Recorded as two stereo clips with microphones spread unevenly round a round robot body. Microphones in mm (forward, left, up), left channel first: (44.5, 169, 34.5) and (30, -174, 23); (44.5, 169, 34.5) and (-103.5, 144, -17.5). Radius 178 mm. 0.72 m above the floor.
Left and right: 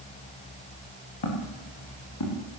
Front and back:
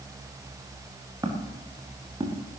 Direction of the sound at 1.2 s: 120° left.